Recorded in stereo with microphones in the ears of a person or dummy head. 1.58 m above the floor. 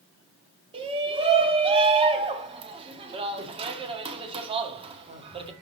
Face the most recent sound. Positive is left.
turn(degrees=-35)  # may be behind; listen again after turning